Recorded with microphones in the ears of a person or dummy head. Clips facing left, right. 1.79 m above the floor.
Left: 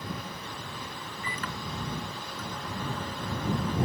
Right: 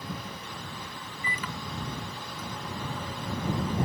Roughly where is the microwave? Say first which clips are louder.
Even; centre.